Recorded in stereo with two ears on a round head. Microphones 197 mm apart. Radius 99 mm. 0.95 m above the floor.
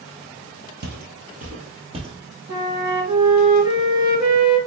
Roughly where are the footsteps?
Right.